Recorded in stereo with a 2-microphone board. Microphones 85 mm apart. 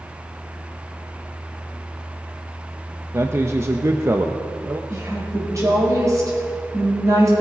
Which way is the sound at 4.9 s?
40° right (ahead or behind).